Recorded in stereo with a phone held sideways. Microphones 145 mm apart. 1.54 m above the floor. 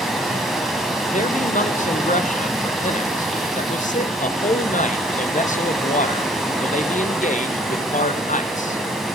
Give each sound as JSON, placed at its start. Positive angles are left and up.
{"t": 0.0, "sound": "running water", "side_deg": 0, "distance_m": 1.5}
{"t": 1.1, "sound": "a man speaking", "side_deg": 60, "distance_m": 0.7}